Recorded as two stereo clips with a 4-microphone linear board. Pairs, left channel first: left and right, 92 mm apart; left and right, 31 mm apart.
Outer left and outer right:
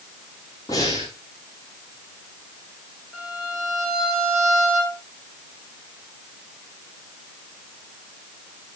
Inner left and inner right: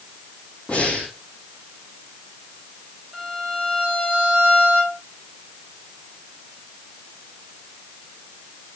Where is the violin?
Centre (ahead or behind), 5.5 m.